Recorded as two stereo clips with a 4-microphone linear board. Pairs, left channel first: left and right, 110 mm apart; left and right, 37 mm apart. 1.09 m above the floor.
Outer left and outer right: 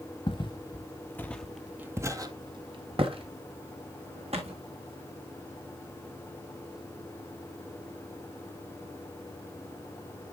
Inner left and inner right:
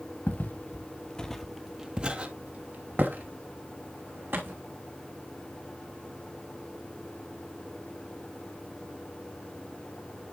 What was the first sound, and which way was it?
Footsteps, 50° left (ahead or behind).